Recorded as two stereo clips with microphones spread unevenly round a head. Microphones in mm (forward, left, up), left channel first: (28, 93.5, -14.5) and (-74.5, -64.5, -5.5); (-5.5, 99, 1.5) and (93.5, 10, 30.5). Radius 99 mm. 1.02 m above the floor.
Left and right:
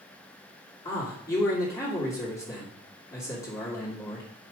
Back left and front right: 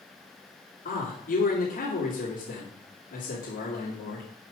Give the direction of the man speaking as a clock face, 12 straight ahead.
8 o'clock.